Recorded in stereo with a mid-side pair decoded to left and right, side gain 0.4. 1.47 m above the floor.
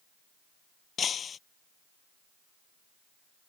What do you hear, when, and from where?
1.0 s breaking glass: 55° left